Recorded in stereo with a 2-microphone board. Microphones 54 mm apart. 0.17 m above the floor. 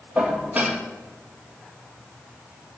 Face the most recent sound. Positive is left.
turn(degrees=-25)  # may be behind; listen again after turning